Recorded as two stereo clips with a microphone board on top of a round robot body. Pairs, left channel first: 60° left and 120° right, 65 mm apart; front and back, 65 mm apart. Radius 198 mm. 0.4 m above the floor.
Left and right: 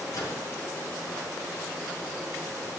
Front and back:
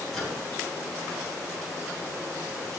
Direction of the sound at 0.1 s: 85° left.